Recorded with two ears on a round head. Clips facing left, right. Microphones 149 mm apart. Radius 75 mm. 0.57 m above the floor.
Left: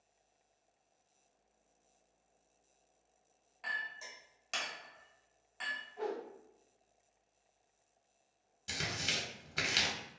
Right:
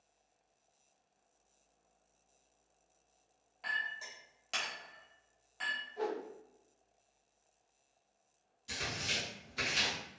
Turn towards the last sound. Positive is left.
turn(degrees=70)  # may be behind; listen again after turning